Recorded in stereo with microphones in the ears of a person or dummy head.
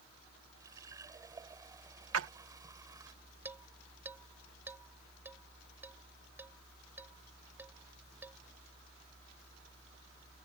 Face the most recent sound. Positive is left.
turn(degrees=-10)  # may be behind; listen again after turning